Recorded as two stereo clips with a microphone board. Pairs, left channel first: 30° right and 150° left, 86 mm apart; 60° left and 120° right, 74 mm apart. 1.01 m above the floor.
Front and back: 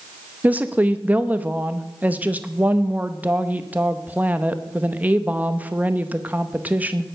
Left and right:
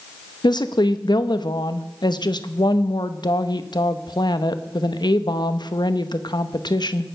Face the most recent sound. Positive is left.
turn(degrees=80)